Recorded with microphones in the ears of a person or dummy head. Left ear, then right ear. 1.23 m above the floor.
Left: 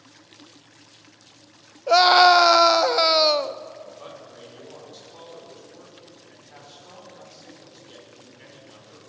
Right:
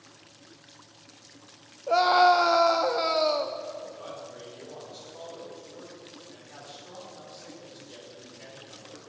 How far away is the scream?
About 0.6 m.